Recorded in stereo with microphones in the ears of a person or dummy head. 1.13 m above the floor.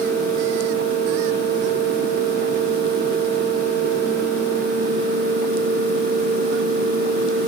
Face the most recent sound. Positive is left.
No sound to turn to.